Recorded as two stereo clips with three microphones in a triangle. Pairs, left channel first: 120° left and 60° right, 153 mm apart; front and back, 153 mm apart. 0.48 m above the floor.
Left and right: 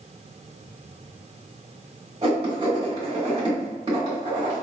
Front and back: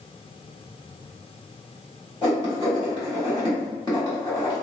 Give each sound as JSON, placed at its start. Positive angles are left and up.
{"t": 2.2, "sound": "writing", "azimuth_deg": -40, "distance_m": 1.2}